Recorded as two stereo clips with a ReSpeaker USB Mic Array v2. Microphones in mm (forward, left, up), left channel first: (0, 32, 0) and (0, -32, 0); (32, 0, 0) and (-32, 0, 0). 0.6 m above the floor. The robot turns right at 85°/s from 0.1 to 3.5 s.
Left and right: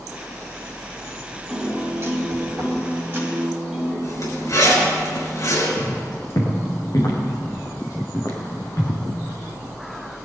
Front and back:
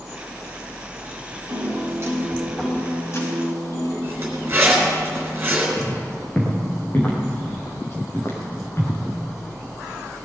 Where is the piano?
175° right, 4.5 m; by 3.9 s 5° right, 4.5 m.